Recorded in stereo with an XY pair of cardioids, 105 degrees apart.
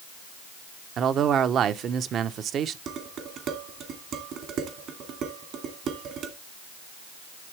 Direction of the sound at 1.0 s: 60° right.